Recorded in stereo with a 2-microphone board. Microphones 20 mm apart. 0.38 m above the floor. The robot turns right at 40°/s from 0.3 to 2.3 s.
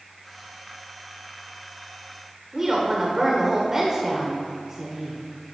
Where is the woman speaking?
20° right (ahead or behind), 1.0 m.